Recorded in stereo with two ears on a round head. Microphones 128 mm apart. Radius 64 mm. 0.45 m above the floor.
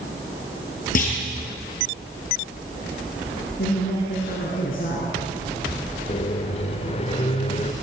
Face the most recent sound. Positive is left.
turn(degrees=40)  # may be behind; listen again after turning